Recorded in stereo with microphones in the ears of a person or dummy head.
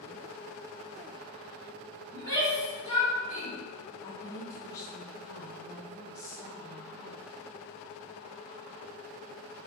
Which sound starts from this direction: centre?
A shout, at 2.1 s.